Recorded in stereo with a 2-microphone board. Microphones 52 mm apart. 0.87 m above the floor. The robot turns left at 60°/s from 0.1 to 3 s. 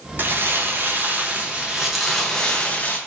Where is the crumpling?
70° right, 0.5 m; by 3.0 s 125° left, 0.5 m.